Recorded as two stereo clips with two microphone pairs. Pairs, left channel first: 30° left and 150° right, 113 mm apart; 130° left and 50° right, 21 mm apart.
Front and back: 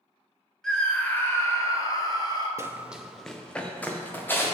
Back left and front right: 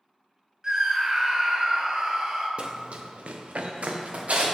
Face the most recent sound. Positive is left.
turn(degrees=-45)